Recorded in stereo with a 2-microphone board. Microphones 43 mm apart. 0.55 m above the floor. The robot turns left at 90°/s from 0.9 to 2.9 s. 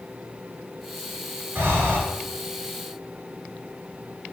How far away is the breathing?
About 1.8 m.